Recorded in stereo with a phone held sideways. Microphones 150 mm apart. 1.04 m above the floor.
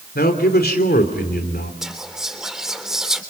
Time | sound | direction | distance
0.1 | a man speaking | 80° left | 3.5 m
1.8 | whispering | 5° right (ahead or behind) | 3 m